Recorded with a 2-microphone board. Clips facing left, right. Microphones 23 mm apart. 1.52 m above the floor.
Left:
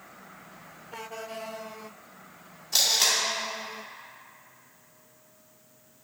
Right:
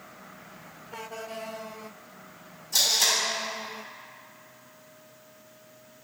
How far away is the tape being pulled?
About 1.9 m.